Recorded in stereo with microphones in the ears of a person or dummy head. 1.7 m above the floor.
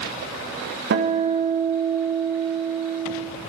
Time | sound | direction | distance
0.9 | a guitar | 65° right (ahead or behind) | 1.8 m